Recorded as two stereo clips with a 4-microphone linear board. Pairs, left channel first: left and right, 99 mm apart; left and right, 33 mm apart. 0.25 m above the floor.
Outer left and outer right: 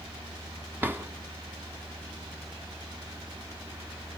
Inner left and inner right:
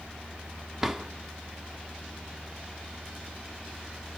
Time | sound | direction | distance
0.8 | a drawer | 20° right (ahead or behind) | 1.3 m